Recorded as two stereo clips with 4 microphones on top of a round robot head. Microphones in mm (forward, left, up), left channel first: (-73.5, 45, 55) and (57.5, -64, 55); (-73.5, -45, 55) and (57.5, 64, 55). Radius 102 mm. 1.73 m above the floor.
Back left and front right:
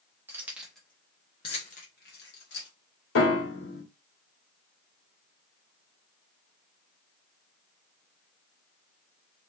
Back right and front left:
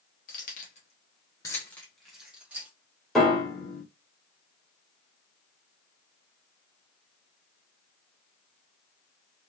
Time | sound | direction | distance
0.3 | keys jangling | 110° right | 0.9 m
3.1 | a piano | 130° left | 1.5 m